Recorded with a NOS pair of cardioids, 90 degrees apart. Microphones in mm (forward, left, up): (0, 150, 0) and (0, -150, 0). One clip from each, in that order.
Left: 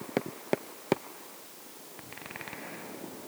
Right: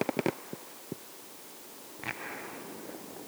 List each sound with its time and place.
Only background noise.